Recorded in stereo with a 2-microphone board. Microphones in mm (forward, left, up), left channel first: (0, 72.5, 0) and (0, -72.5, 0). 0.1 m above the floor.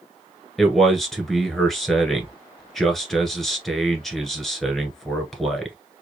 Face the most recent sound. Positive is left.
turn(degrees=0)  # may be behind; listen again after turning